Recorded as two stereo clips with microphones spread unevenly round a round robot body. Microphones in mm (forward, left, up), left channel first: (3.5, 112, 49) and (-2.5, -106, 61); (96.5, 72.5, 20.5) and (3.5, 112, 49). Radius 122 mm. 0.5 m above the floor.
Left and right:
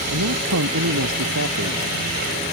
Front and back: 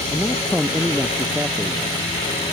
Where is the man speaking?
115° right; by 1.8 s 120° right.